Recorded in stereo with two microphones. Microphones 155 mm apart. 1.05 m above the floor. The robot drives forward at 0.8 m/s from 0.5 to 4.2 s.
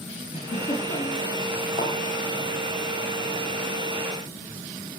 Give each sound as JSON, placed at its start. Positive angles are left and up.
{"t": 0.3, "sound": "a giggle", "side_deg": 45, "distance_m": 9.0}
{"t": 1.8, "sound": "a thud", "side_deg": 55, "distance_m": 7.5}